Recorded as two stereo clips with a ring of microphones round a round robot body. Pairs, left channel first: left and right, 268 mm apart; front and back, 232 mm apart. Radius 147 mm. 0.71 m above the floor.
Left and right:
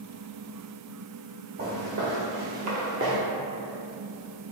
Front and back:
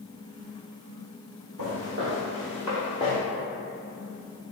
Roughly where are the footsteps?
Behind right.